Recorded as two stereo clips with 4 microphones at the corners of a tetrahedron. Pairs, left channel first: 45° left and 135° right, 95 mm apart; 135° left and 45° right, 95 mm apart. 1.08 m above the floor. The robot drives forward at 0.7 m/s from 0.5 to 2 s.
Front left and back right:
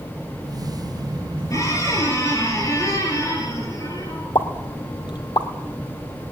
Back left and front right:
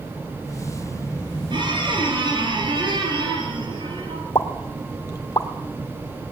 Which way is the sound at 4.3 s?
85° left.